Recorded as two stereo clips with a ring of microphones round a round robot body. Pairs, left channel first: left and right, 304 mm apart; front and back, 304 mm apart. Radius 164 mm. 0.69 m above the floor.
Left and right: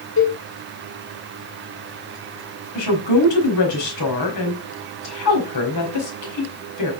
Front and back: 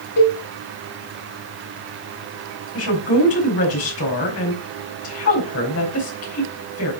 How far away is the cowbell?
About 3 m.